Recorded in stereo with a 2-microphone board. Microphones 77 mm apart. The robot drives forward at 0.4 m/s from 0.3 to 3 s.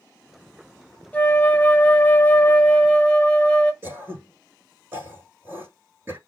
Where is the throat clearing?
30° right (ahead or behind), 5.5 m.